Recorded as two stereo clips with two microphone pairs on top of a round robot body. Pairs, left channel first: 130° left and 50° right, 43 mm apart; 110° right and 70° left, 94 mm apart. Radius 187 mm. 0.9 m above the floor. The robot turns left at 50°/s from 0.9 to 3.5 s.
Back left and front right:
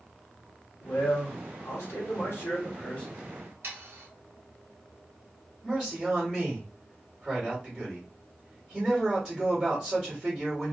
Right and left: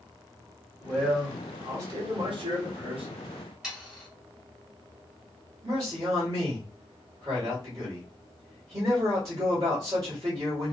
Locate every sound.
0.8 s a man speaking: 165° left, 2.5 m; by 3.1 s 55° left, 2.5 m
3.6 s sawing: 15° right, 1.3 m
5.6 s a man speaking: 20° left, 3 m